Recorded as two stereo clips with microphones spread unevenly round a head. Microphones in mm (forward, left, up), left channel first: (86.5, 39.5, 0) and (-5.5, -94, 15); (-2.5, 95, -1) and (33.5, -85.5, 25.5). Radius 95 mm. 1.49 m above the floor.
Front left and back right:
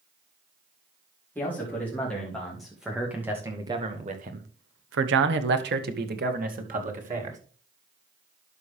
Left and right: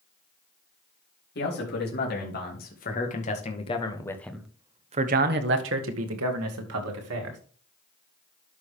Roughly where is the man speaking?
Behind left.